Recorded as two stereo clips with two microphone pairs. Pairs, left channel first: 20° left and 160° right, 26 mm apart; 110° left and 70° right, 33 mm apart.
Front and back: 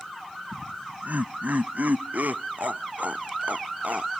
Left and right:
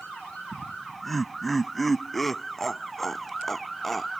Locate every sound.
0.5 s laughter: 160° right; by 4.1 s 165° right